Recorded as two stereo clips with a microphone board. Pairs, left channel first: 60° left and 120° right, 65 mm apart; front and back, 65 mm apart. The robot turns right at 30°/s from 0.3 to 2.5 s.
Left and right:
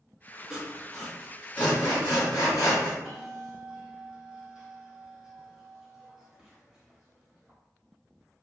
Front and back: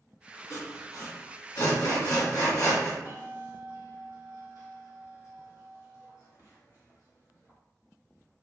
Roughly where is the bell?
Ahead right.